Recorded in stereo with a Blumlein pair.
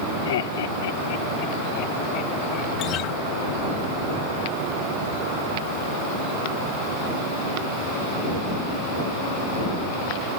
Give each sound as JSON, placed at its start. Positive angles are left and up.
{"t": 0.2, "sound": "laughter", "azimuth_deg": 60}
{"t": 2.8, "sound": "a guitar", "azimuth_deg": 35}